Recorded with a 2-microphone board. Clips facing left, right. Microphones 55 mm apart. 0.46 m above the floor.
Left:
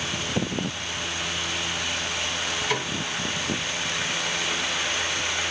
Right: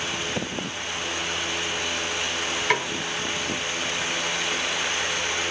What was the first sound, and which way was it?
A snare drum, 55° right (ahead or behind).